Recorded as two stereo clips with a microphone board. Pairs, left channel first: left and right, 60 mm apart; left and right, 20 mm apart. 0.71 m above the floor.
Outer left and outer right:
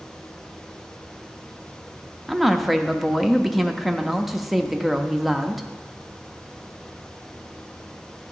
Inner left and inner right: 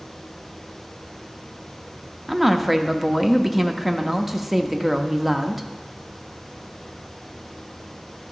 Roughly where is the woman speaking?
Centre.